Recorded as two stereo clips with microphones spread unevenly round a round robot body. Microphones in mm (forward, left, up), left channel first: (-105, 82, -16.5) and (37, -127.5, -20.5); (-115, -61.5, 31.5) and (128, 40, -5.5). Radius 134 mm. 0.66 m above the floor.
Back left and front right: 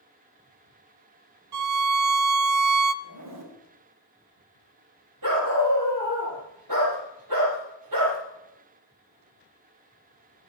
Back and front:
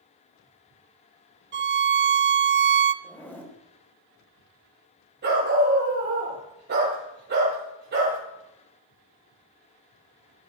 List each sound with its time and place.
1.5 s a violin: 30° right, 0.7 m
3.0 s a zipper: 70° right, 3 m
5.2 s a dog barking: 30° right, 9 m